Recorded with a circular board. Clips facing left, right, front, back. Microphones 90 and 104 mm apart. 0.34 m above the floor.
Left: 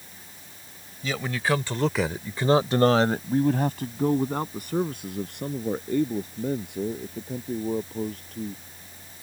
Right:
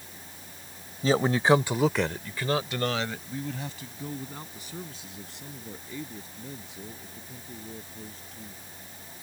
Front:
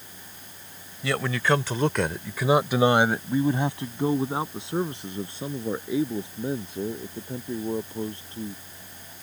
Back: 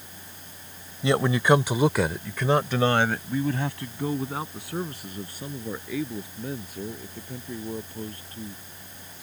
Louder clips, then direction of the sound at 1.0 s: Right 5 dB, back 4 dB; 120° right.